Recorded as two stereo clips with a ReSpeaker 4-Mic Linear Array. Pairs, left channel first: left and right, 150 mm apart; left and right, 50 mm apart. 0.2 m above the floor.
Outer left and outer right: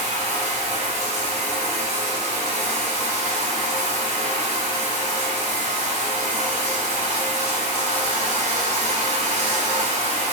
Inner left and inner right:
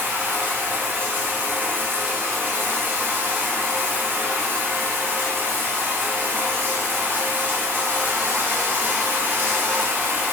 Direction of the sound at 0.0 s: 50° right (ahead or behind).